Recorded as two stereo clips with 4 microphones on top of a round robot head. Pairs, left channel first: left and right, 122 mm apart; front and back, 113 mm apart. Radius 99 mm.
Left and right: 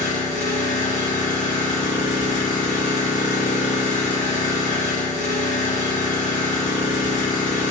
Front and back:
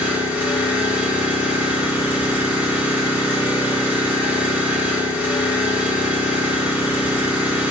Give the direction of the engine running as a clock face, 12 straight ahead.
9 o'clock.